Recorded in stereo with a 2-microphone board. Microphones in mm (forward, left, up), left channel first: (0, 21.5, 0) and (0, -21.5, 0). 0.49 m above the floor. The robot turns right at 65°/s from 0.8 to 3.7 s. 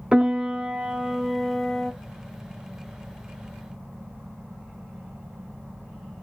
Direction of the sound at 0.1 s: 45° right.